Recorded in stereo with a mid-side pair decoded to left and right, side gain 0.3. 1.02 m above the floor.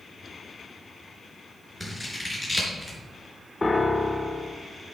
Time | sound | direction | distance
1.8 | scissors | 5° right | 4.5 m
3.6 | a piano | 25° left | 1.4 m